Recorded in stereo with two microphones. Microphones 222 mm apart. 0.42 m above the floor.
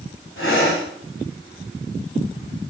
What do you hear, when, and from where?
0.4 s breathing: 65° left (ahead or behind), 3 m